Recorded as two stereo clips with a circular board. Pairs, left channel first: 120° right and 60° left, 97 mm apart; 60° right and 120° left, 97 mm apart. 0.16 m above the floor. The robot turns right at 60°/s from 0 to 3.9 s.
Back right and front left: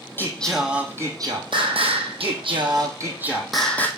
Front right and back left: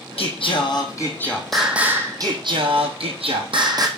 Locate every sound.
0.2 s singing: 55° right, 1.5 m; by 3.9 s 170° left, 1.5 m